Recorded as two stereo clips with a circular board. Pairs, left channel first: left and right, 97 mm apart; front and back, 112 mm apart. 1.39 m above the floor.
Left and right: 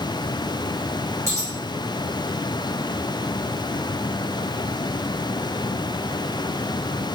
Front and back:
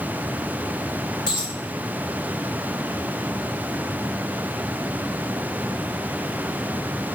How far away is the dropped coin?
About 1.4 m.